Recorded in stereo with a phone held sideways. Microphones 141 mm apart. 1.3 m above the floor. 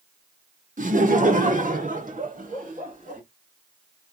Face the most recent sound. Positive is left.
turn(degrees=-75)  # may be behind; listen again after turning